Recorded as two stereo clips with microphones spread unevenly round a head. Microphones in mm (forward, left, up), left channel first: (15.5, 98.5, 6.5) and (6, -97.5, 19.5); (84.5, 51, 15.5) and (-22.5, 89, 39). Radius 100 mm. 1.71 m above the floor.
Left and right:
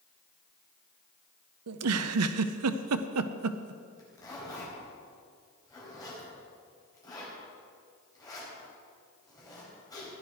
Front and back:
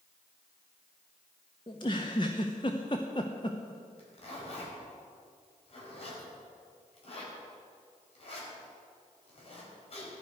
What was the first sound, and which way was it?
A giggle, 90° right.